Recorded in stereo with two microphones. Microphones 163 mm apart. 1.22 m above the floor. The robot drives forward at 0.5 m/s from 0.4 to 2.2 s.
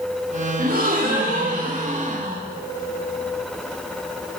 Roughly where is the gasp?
Right.